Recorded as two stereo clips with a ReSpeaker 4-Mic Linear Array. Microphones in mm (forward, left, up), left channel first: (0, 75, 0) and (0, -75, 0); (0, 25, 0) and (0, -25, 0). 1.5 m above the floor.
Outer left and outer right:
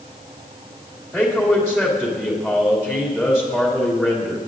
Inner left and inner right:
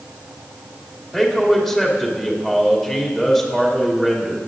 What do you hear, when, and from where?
1.1 s a man speaking: 5° right (ahead or behind), 2.5 m